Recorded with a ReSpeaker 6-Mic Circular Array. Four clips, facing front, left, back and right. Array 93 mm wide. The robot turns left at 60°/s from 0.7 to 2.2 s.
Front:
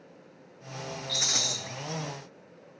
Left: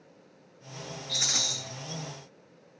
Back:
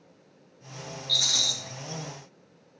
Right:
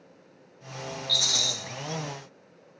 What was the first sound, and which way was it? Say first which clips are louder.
A rattle: right 3 dB, front 2 dB; 60° left.